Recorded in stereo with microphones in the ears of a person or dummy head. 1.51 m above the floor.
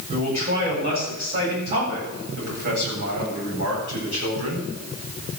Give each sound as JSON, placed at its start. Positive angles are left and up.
{"t": 0.1, "sound": "a man speaking", "side_deg": -45, "distance_m": 8.0}